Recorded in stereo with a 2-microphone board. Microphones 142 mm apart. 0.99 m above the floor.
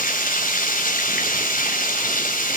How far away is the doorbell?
No doorbell in this recording.